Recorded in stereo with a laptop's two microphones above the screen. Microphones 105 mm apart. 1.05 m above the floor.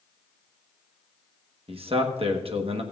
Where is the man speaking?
60° right (ahead or behind), 1.0 m.